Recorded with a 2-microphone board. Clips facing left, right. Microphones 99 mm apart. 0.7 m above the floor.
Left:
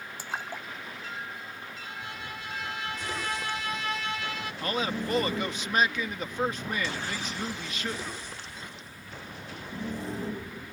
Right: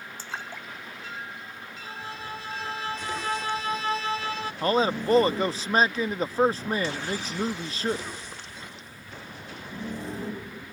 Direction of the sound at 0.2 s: 15° left (ahead or behind).